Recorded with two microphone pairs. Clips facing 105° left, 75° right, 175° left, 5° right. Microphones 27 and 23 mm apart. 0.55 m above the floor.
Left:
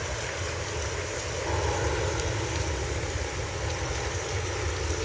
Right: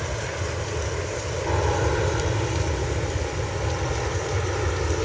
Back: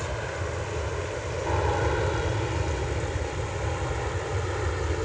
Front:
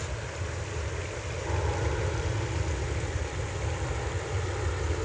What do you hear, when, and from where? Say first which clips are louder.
0.0 s an aircraft: right 3 dB, back 5 dB; 145° right; by 5.0 s 125° right